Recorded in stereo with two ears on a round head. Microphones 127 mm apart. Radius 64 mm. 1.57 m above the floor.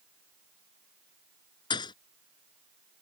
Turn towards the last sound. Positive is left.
turn(degrees=30)  # may be behind; listen again after turning